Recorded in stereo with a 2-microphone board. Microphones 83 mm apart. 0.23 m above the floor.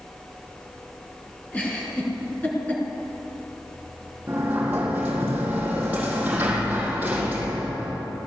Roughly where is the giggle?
Centre.